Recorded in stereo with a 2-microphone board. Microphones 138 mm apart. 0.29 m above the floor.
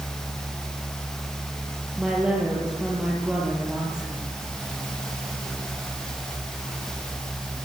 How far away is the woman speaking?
About 7.5 m.